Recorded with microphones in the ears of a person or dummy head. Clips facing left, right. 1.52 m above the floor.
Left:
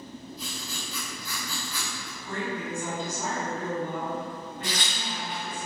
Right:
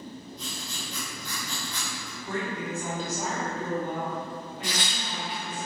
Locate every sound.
0.4 s writing: 5° left (ahead or behind), 0.9 m
2.2 s a woman speaking: 10° right (ahead or behind), 1.6 m
4.6 s tearing paper: 5° left (ahead or behind), 0.5 m